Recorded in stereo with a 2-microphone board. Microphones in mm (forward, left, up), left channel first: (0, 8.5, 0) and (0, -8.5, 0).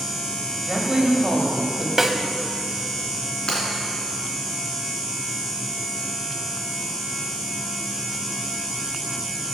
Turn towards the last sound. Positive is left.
turn(degrees=60)  # may be behind; listen again after turning